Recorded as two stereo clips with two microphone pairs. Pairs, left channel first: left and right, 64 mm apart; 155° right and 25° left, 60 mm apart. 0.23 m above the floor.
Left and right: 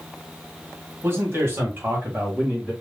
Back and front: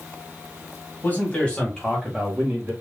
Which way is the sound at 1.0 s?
115° right.